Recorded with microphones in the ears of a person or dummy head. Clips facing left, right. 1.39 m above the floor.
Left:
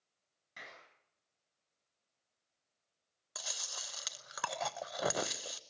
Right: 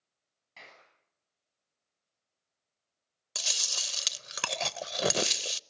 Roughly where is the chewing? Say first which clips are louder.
Right 4 dB; right.